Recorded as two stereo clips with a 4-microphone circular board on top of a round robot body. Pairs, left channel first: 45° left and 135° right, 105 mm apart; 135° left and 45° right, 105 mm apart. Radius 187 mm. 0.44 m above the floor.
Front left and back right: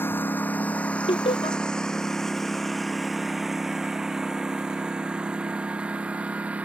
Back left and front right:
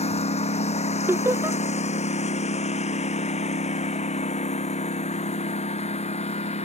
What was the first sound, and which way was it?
A lawn mower, 115° left.